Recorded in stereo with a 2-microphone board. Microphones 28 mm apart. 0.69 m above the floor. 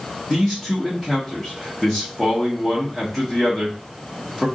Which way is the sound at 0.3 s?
10° left (ahead or behind).